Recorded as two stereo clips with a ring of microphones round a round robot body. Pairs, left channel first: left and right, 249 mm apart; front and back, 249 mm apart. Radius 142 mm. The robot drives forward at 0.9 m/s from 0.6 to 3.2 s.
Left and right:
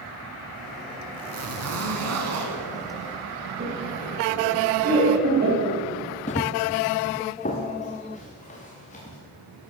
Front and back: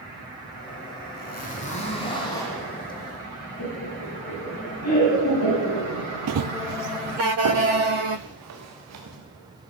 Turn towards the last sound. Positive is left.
turn(degrees=155)